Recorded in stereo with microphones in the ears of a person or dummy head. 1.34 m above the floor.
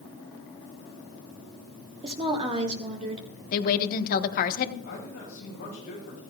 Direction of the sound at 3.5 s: 50° left (ahead or behind).